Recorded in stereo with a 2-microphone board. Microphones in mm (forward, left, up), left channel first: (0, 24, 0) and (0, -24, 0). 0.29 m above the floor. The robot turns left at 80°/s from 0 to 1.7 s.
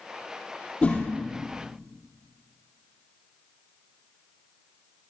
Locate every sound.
0.8 s a whoosh: 20° left (ahead or behind), 2.5 m; by 1.1 s 40° left (ahead or behind), 2.5 m